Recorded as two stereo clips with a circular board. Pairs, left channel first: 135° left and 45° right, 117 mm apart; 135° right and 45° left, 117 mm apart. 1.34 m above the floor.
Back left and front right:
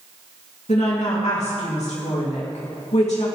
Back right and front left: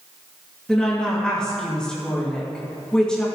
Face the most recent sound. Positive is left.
turn(degrees=145)